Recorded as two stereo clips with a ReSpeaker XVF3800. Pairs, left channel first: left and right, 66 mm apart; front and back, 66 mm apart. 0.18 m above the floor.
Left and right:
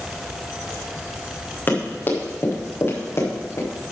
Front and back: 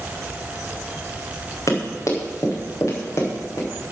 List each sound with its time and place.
1.7 s running footsteps: 35° left, 4.5 m; by 3.7 s 45° left, 6 m